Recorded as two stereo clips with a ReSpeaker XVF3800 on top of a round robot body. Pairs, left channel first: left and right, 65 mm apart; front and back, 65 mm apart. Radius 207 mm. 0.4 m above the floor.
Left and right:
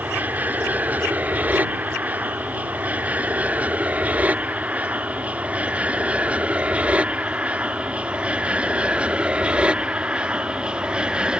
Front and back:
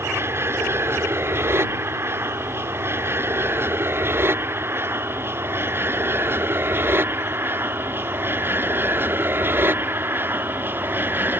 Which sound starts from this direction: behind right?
An aircraft, at 0.0 s.